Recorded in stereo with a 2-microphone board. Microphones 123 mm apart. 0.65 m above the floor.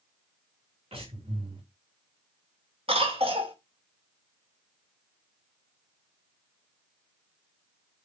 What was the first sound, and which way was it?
Breathing, 50° right (ahead or behind).